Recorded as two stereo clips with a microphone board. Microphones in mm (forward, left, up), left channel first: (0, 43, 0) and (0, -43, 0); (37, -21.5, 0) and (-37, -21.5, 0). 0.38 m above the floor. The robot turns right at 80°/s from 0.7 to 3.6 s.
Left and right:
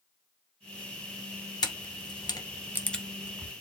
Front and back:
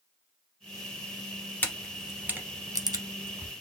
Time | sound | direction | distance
1.6 | a camera shutter | 60° left | 0.6 m